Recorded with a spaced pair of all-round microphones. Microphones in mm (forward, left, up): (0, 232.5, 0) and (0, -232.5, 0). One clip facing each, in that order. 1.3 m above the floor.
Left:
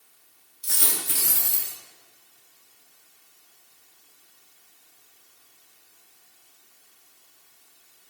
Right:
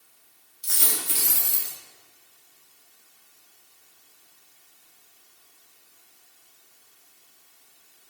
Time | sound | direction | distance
0.6 | a dropped coin | 70° left (ahead or behind) | 2.5 m